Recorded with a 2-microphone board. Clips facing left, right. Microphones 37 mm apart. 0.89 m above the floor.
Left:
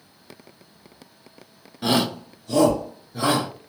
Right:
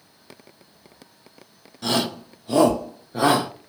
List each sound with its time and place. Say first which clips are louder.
1.8 s a shout: left 2 dB; 20° left (ahead or behind), 0.6 m; by 3.5 s 70° right (ahead or behind), 0.8 m